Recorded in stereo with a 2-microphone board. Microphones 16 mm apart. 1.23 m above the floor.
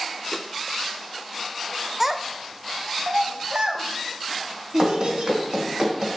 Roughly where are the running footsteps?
Right.